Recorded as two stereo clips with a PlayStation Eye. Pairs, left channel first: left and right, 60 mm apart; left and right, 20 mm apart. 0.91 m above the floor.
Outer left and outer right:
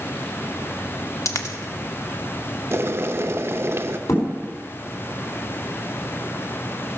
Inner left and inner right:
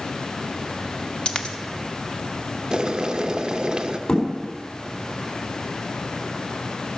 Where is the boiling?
45° right (ahead or behind), 0.6 m.